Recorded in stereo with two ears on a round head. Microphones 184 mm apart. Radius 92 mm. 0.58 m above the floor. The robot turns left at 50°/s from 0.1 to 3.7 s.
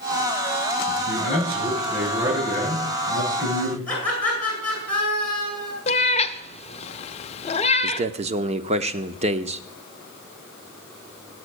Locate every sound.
0.9 s a man speaking: 50° left, 6 m; by 3.8 s 95° right, 6 m
3.9 s laughter: 5° left (ahead or behind), 8.5 m
5.9 s a cat meowing: 30° left (ahead or behind), 0.7 m
7.8 s a man speaking: 30° right (ahead or behind), 1.1 m